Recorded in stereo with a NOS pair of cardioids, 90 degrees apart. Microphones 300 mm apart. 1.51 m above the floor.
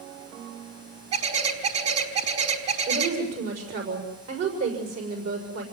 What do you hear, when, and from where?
1.1 s a bird: 60° right, 5.5 m
2.9 s a woman speaking: 60° right, 6.5 m